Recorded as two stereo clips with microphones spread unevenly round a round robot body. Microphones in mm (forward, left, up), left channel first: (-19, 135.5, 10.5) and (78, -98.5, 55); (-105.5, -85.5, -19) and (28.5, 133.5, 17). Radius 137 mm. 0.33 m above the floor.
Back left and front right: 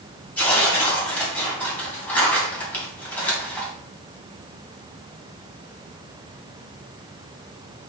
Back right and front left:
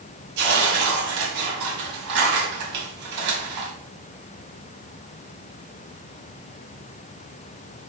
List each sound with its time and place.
0.4 s tearing paper: 35° left, 2.5 m